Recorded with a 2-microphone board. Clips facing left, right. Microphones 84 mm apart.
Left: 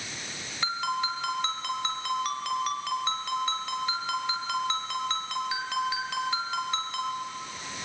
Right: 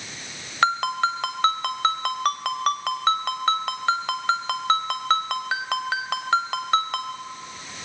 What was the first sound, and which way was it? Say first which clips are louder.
A ringtone: right 8 dB; 75° right (ahead or behind).